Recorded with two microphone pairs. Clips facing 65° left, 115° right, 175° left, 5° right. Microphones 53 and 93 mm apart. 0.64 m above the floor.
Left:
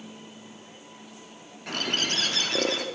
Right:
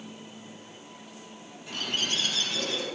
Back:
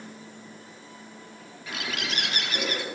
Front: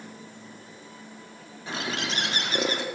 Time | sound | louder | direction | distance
1.7 | a bird | left 3 dB, front 2 dB | 50° left | 0.6 m